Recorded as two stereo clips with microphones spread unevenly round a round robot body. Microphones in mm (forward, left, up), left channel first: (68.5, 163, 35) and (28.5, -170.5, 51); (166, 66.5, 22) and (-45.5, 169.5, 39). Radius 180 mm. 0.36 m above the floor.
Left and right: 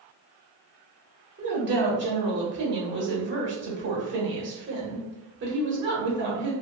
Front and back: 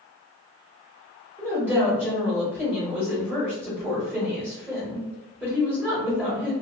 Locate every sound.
1.4 s a woman speaking: 120° right, 1.1 m